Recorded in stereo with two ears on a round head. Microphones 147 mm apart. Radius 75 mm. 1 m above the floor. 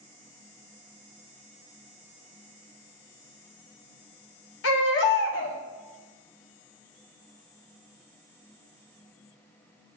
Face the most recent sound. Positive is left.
turn(degrees=85)